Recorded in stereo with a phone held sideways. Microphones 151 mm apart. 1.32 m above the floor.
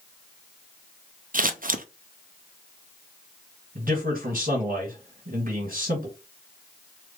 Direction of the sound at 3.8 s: 70° right (ahead or behind).